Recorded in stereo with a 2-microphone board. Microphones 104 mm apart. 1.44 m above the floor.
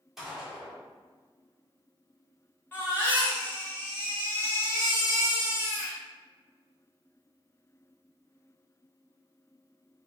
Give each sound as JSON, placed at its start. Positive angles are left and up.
{"t": 0.2, "sound": "a gunshot", "side_deg": -5, "distance_m": 1.7}
{"t": 2.7, "sound": "a baby crying", "side_deg": 20, "distance_m": 1.7}